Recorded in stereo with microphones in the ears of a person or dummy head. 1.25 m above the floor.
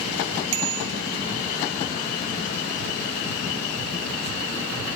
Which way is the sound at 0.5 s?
65° right (ahead or behind).